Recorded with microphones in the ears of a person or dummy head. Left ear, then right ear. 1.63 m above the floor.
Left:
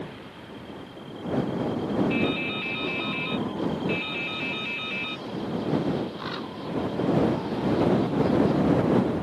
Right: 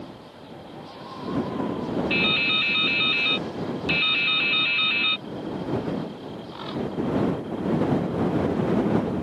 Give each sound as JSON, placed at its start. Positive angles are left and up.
{"t": 2.1, "sound": "dripping", "side_deg": -60}